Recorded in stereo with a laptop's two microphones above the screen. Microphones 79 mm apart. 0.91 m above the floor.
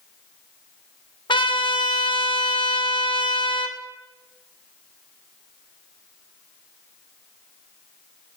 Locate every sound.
1.3 s a trumpet: 75° left (ahead or behind), 0.7 m